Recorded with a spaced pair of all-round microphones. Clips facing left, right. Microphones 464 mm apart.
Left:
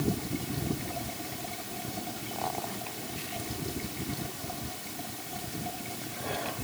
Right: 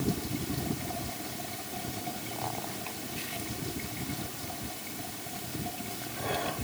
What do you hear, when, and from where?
Only background noise.